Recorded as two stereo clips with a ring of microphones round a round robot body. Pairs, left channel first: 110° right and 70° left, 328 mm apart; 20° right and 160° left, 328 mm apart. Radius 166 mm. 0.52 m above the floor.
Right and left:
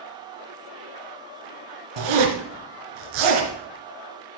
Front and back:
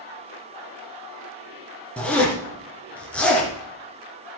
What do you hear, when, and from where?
2.0 s a zipper: 65° left, 3 m